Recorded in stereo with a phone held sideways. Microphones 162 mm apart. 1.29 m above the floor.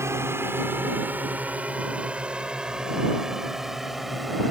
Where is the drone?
15° right (ahead or behind); by 4.5 s centre (ahead or behind).